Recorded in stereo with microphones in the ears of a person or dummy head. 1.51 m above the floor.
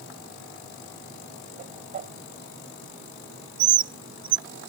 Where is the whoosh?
35° right (ahead or behind).